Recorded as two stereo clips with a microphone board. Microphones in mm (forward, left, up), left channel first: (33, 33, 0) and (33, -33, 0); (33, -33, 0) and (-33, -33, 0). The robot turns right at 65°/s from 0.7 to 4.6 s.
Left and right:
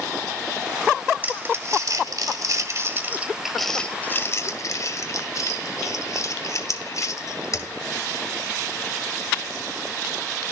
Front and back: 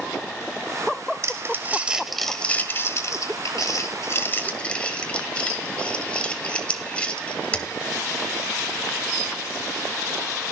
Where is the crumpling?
150° right, 1.6 m; by 7.7 s 70° left, 1.6 m.